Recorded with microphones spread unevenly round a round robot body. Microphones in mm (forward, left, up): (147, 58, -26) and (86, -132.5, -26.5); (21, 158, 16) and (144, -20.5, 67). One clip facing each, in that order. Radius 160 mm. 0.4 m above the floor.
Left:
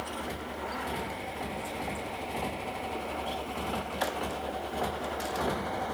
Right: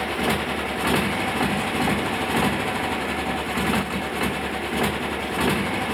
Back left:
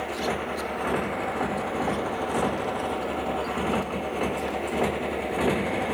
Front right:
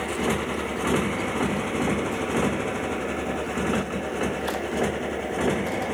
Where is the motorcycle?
115° right; by 5.9 s 145° right.